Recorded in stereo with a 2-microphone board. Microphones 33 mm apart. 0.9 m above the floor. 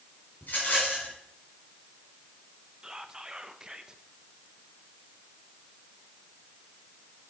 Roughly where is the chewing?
I don't hear chewing.